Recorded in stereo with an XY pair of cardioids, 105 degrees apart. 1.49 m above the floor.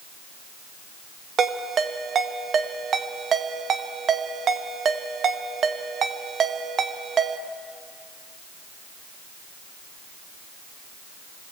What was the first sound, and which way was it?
A ringtone, 50° right.